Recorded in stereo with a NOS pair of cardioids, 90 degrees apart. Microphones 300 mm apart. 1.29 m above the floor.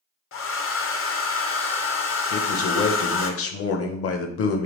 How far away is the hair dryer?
About 0.7 m.